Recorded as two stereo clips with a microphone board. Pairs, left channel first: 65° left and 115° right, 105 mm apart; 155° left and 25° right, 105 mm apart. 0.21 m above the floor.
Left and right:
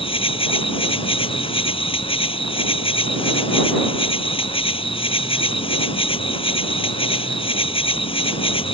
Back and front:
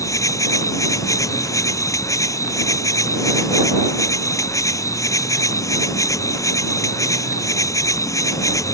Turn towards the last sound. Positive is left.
turn(degrees=100)